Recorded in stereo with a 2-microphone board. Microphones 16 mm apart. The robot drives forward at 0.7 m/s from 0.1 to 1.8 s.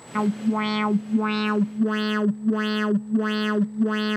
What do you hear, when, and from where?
0.1 s an alarm: 5° left (ahead or behind)